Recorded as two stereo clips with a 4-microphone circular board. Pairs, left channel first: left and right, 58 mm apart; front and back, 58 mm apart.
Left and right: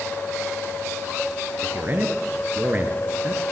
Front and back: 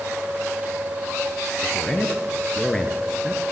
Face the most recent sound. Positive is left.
turn(degrees=-75)